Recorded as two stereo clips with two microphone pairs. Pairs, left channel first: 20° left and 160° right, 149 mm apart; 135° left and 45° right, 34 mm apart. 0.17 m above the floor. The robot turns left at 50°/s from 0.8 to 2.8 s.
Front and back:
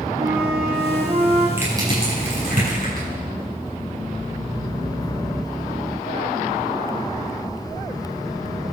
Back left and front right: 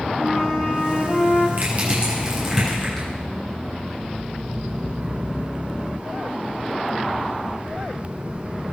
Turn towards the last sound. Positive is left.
turn(degrees=-145)